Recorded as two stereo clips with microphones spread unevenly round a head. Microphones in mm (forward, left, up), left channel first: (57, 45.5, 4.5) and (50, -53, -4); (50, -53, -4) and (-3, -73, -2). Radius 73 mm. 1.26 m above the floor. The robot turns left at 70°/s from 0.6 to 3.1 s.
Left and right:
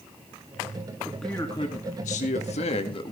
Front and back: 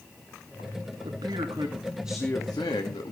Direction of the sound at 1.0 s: 175° right.